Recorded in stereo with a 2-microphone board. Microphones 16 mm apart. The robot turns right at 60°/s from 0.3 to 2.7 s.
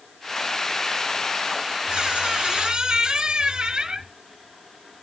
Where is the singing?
No singing in this recording.